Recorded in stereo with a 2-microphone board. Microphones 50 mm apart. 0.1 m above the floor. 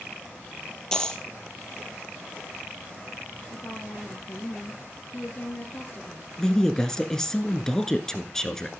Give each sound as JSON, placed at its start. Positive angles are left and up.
{"t": 0.9, "sound": "a dropped coin", "side_deg": 15, "distance_m": 1.4}
{"t": 3.5, "sound": "a woman speaking", "side_deg": 40, "distance_m": 1.8}
{"t": 6.4, "sound": "a woman speaking", "side_deg": 10, "distance_m": 1.2}